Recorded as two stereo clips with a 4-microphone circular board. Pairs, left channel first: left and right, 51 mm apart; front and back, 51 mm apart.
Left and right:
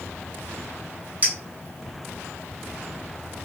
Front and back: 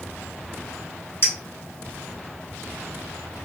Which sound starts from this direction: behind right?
A clink, at 1.2 s.